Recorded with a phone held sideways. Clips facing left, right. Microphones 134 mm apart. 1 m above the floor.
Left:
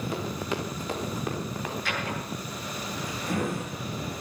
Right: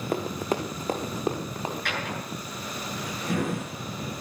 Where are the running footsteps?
50° right (ahead or behind), 3 m; by 1.8 s 30° right (ahead or behind), 3.5 m.